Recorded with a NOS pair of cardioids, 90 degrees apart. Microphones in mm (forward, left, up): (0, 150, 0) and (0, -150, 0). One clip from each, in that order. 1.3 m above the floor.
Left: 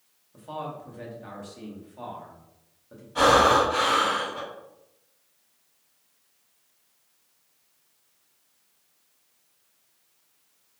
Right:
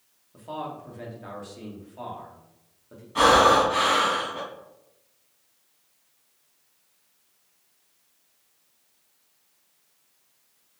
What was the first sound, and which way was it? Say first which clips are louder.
A man speaking: right 1 dB; 5° right.